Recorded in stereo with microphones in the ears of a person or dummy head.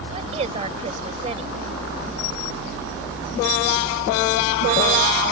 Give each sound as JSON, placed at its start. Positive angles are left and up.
{"t": 0.1, "sound": "a woman speaking", "side_deg": -35}